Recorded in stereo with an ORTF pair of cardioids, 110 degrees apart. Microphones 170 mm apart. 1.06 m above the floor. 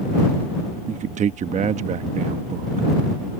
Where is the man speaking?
45° right.